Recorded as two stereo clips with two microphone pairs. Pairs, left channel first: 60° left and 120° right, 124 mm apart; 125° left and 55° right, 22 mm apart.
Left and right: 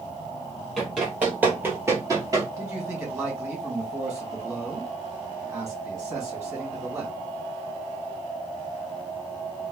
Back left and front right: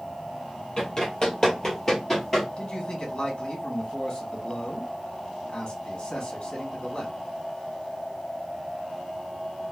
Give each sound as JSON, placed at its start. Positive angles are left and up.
{"t": 0.8, "sound": "running footsteps", "azimuth_deg": 155, "distance_m": 1.7}
{"t": 2.6, "sound": "a man speaking", "azimuth_deg": 175, "distance_m": 1.6}